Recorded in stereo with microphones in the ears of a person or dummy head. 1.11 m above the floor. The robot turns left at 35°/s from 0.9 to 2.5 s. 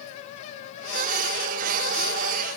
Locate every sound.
Only background noise.